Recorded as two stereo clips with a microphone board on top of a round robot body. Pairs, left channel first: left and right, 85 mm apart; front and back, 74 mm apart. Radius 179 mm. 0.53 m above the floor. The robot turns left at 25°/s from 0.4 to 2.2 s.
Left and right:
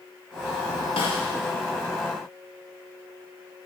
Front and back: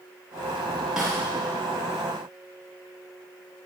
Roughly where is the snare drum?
Left.